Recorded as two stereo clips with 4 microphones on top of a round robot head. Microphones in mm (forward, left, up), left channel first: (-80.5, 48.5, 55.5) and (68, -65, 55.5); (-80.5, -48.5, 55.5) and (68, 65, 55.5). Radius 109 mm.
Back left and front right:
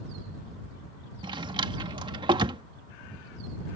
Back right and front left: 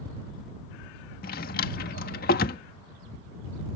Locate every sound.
1.2 s a drawer: 100° right